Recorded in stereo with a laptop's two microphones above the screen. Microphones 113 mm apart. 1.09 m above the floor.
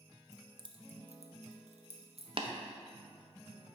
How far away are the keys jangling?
About 0.7 m.